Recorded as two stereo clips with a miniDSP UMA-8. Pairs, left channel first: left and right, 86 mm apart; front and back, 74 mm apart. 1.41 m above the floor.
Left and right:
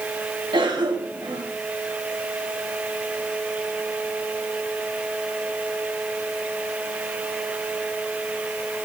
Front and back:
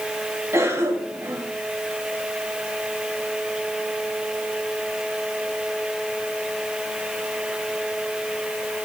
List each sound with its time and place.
0.5 s a cough: 125° right, 2 m